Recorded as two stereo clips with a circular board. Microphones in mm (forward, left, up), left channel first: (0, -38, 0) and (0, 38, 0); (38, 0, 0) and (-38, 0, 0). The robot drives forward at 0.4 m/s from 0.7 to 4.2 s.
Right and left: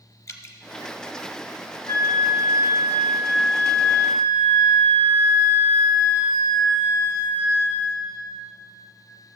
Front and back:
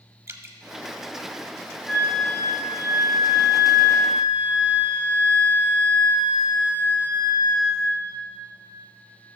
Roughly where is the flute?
Right.